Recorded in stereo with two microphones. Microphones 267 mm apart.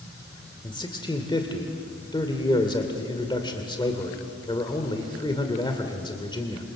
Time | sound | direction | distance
0.6 | a man speaking | 20° left (ahead or behind) | 2 m